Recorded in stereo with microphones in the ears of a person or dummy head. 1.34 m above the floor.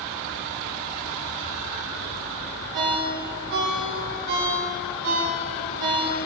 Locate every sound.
2.7 s a ringtone: 55° right (ahead or behind), 1.0 m